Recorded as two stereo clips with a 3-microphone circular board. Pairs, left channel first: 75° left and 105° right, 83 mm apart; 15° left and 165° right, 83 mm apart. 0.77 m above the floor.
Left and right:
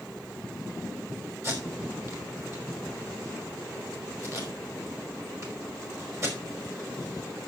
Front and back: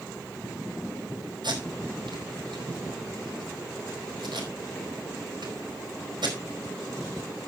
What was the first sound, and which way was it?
Tape being pulled, 155° right.